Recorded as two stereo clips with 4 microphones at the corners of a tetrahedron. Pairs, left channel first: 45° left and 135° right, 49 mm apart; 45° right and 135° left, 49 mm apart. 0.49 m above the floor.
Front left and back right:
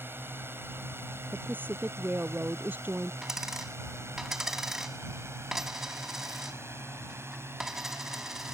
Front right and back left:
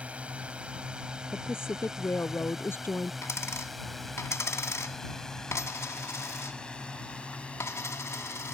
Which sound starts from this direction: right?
A woman speaking, at 1.3 s.